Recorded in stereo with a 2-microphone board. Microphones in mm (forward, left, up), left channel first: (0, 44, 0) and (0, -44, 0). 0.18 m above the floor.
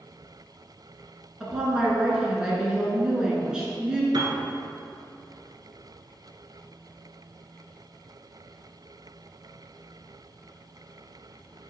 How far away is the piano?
About 0.9 m.